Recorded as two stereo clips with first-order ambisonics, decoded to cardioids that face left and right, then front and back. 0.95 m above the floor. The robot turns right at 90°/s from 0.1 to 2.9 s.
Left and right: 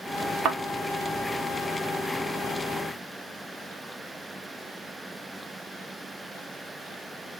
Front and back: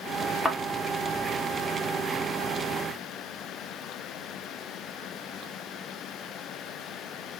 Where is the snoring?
No snoring in this recording.